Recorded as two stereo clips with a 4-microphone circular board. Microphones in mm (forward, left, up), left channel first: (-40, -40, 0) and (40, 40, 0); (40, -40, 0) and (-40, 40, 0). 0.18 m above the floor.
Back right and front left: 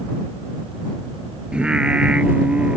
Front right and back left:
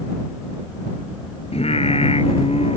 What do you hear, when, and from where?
1.5 s singing: 35° right